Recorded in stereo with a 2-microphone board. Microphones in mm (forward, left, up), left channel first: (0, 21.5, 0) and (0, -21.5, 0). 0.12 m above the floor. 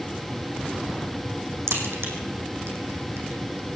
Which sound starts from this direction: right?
A crack, at 1.7 s.